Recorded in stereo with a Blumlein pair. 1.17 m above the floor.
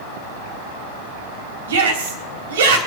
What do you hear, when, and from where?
1.7 s a shout: 65° right, 3 m